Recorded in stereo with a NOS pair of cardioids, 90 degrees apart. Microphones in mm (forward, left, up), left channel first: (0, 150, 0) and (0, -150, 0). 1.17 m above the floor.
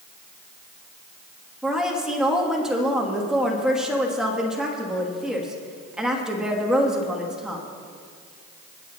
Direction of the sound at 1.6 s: Straight ahead.